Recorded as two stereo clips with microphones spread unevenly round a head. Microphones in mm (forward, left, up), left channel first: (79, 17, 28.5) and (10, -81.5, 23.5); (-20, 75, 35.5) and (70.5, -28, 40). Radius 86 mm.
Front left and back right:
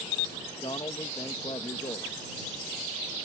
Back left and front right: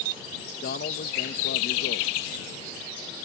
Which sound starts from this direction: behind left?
A man speaking, at 0.6 s.